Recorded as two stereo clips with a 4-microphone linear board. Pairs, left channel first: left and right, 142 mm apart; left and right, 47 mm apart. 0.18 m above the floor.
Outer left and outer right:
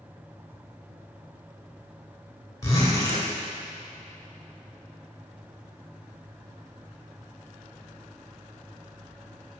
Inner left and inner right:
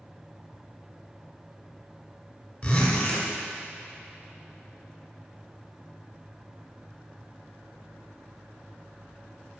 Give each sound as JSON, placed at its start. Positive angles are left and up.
{"t": 2.6, "sound": "a zipper", "side_deg": 25, "distance_m": 1.7}